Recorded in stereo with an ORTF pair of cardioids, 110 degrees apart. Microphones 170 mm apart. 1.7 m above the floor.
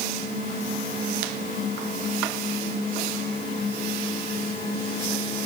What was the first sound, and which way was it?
Only background noise.